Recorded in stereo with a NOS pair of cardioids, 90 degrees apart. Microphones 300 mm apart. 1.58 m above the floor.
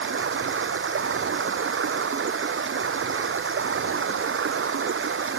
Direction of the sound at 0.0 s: 45° right.